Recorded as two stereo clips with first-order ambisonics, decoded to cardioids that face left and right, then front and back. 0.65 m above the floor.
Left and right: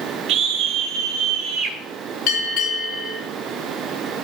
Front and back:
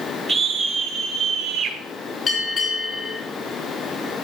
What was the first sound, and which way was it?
A scream, 115° right.